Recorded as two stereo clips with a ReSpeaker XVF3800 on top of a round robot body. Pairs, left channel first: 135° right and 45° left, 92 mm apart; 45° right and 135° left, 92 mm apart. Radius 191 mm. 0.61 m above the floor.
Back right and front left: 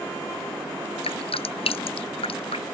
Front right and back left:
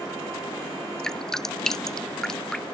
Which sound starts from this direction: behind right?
Dripping, at 1.0 s.